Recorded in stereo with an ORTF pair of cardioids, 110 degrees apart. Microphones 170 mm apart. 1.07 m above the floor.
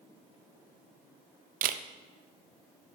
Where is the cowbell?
I don't hear a cowbell.